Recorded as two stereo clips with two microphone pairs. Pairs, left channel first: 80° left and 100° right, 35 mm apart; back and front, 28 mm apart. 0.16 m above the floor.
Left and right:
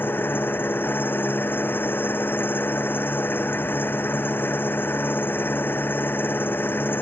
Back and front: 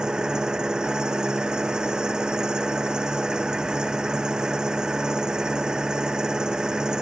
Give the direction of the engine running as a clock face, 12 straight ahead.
10 o'clock.